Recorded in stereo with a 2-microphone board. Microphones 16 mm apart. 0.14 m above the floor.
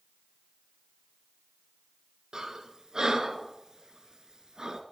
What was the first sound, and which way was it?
Breathing, 50° right (ahead or behind).